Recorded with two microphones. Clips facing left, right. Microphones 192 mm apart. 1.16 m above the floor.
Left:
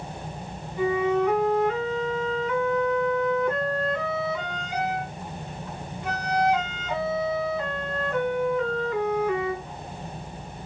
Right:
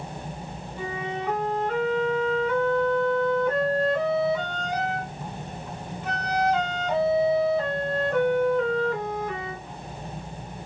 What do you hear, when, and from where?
0.8 s a flute: 40° right (ahead or behind), 1.9 m